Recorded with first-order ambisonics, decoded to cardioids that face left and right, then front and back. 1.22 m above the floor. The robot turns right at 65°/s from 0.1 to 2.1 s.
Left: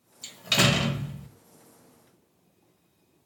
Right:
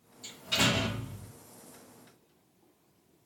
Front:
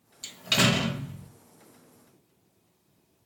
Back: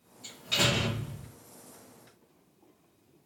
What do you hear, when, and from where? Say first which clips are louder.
0.2 s a door slam: left 5 dB, front 3 dB; 35° left, 0.6 m; by 1.3 s 100° left, 0.6 m